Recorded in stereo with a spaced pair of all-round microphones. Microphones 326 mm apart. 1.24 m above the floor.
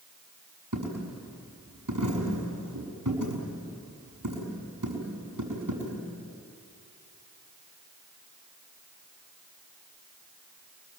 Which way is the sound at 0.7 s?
75° right (ahead or behind).